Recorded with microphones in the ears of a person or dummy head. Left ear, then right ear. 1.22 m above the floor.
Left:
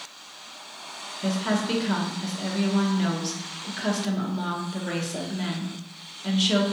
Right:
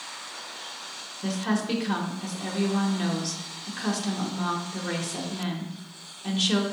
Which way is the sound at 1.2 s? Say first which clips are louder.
Left 2 dB; 5° left (ahead or behind).